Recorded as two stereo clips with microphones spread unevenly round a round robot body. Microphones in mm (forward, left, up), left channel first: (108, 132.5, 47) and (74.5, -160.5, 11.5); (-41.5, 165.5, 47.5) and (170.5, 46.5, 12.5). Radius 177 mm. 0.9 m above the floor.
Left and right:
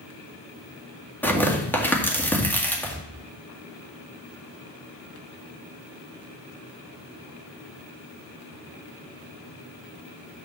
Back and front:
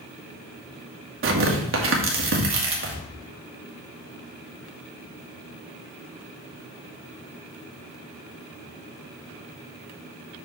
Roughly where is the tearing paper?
Ahead.